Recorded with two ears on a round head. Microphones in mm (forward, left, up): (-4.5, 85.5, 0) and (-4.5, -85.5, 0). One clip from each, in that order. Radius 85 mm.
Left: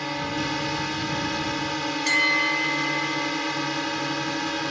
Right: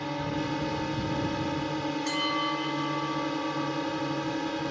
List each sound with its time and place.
0.0 s a drone: 55° left (ahead or behind)
2.1 s a bell: 50° left (ahead or behind)